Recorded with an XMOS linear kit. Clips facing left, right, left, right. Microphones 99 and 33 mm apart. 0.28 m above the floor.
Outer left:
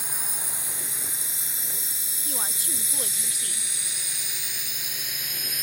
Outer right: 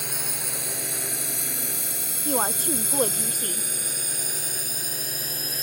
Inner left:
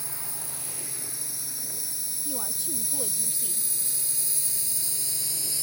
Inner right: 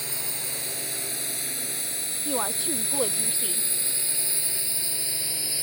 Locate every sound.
0.0 s a drone: 75° right (ahead or behind); by 5.6 s 35° right (ahead or behind)
2.2 s a woman speaking: 50° right (ahead or behind)